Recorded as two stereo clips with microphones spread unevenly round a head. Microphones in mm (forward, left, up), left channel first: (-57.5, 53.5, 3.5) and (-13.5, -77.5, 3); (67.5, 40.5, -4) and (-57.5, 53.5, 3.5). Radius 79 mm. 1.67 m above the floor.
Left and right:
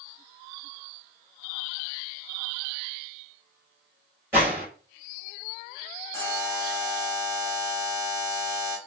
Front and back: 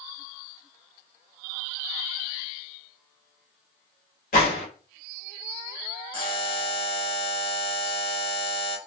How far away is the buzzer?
About 1.2 m.